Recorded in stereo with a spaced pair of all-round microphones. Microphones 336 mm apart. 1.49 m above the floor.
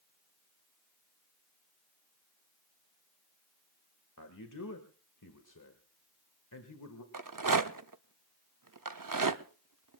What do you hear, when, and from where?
4.2 s a man speaking: 65° left (ahead or behind), 1.6 m
7.1 s a rattle: 70° right (ahead or behind), 0.7 m